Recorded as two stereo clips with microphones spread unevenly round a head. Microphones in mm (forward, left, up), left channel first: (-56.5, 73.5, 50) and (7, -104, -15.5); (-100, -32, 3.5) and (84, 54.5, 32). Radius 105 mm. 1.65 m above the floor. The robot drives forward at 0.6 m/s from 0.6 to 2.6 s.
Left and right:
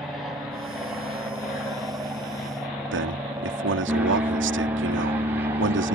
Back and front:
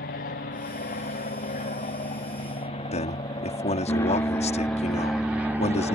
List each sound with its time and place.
0.0 s an aircraft: 140° right; by 5.9 s 55° right
2.9 s a man speaking: 95° right